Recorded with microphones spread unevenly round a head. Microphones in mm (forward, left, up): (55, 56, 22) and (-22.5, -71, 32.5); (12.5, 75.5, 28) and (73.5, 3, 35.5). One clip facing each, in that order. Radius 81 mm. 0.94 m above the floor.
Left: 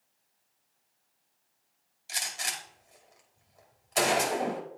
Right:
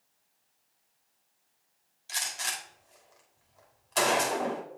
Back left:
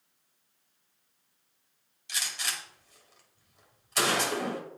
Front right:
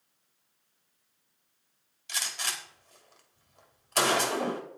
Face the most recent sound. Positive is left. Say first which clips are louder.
# even, even
turn(degrees=-20)